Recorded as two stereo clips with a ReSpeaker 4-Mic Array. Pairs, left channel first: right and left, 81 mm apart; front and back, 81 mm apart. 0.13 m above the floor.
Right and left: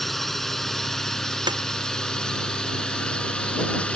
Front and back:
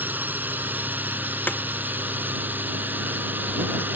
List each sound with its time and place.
0.0 s a drone: 175° right; by 4.0 s 150° right
1.5 s a snare drum: 65° left